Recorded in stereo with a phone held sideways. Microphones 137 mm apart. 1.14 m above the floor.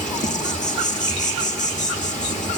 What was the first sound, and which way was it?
An insect, 65° left (ahead or behind).